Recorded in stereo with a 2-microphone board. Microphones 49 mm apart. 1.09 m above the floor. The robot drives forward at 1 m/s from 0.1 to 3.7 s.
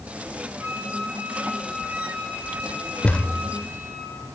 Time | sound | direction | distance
0.6 | a flute | 65° right (ahead or behind) | 9 m
3.0 | a thud | 20° left (ahead or behind) | 1.5 m